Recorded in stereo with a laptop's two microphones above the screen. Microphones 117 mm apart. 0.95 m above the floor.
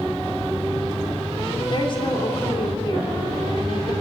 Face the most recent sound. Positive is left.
turn(degrees=45)  # may be behind; listen again after turning